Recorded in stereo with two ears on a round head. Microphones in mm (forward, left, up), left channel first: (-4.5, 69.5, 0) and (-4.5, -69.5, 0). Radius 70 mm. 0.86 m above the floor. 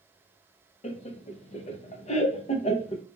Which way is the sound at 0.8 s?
40° left (ahead or behind).